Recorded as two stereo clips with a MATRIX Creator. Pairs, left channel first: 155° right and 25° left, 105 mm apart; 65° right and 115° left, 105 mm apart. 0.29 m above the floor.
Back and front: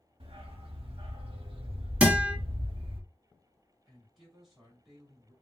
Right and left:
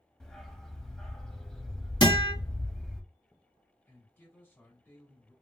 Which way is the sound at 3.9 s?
60° right.